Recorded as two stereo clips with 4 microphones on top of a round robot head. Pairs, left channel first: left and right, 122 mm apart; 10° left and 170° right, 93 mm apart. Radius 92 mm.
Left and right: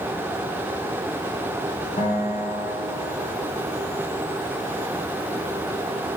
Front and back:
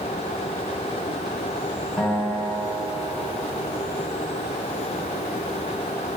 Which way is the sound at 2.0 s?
95° left.